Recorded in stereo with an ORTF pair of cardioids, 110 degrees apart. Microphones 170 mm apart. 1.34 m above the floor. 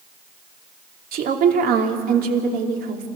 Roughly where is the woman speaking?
Ahead right.